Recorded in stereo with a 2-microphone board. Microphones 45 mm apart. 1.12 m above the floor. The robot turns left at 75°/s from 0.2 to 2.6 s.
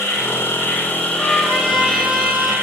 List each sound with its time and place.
0.0 s an insect: 100° left, 2 m; by 2.6 s 80° right, 2 m
1.1 s a trumpet: 75° left, 5 m; by 2.5 s 30° right, 5 m